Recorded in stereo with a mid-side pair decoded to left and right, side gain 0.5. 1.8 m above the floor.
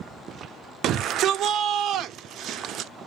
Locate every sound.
0.8 s a shout: 65° right, 0.6 m